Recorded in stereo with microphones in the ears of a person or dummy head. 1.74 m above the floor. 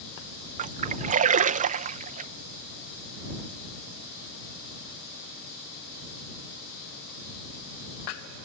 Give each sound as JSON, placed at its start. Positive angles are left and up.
{"t": 0.6, "sound": "a splash", "side_deg": -45}